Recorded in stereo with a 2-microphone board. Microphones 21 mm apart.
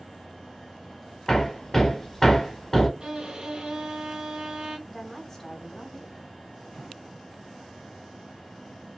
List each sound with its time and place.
1.3 s hammering: 25° left (ahead or behind), 0.9 m
3.0 s a violin: 30° right (ahead or behind), 2.0 m
4.9 s a woman speaking: 25° left (ahead or behind), 1.1 m